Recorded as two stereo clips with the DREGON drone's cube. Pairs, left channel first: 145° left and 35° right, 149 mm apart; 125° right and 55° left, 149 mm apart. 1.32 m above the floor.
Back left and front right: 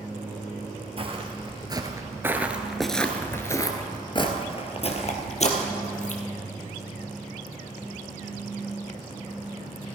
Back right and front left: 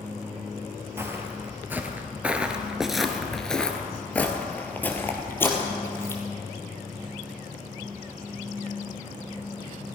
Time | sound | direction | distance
1.0 | footsteps | 10° right | 1.7 m